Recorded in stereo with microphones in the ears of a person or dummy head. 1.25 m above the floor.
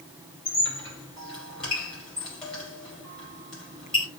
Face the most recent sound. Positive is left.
turn(degrees=5)  # may be behind; listen again after turning